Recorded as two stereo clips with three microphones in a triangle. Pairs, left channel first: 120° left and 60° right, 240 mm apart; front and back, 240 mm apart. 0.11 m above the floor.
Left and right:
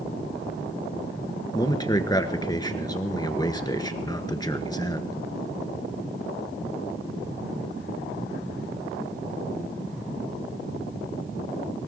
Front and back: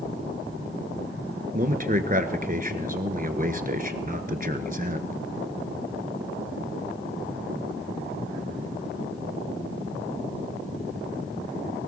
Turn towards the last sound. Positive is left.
turn(degrees=180)